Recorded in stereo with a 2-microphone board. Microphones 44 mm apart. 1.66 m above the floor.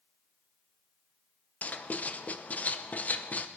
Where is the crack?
I don't hear a crack.